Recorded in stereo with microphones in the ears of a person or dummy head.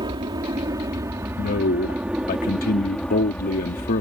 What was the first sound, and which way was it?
An aircraft, 25° right (ahead or behind).